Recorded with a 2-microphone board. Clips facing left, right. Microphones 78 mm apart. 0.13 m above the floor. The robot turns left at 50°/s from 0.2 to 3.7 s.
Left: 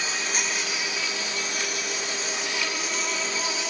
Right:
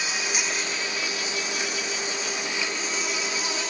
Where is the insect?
165° right, 4.5 m; by 3.7 s 20° left, 4.5 m.